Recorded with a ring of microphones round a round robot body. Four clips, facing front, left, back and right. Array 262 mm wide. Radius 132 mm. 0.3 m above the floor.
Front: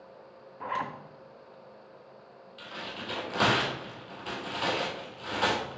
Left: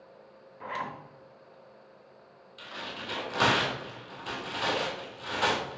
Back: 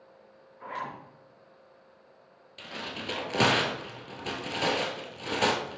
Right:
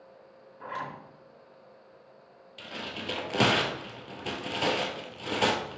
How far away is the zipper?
About 2.5 m.